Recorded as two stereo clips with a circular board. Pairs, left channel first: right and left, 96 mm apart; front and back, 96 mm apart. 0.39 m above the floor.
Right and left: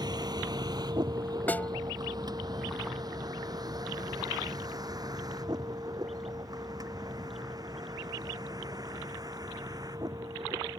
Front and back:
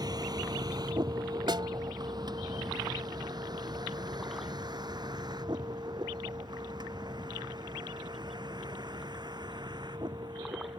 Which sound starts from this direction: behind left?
A vehicle, at 0.0 s.